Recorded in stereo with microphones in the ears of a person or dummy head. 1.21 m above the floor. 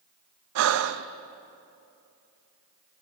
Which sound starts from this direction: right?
Breathing, at 0.6 s.